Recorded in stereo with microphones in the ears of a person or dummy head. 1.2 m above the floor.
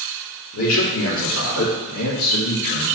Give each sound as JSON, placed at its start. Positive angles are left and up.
{"t": 0.5, "sound": "a man speaking", "side_deg": 80, "distance_m": 1.7}